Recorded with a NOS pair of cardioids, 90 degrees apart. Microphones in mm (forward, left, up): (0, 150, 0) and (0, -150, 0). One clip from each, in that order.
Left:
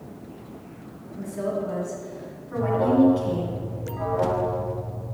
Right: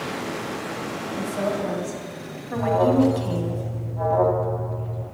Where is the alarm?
60° right, 1.6 m.